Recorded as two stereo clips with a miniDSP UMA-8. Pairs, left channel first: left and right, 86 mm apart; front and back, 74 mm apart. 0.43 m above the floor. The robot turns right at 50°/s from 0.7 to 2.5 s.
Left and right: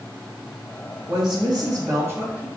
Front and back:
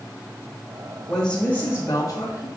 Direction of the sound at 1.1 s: 85° right.